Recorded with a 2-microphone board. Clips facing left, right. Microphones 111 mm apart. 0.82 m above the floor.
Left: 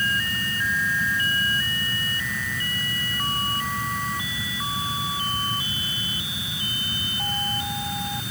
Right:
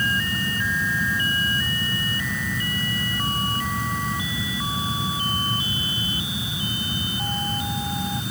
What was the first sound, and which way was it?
Only background noise.